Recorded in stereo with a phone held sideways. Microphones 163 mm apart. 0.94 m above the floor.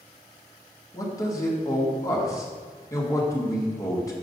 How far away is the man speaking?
About 1.9 m.